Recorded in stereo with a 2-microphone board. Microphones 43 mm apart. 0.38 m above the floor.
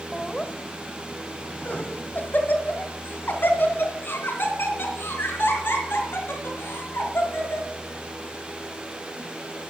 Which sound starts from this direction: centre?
Laughter, at 0.1 s.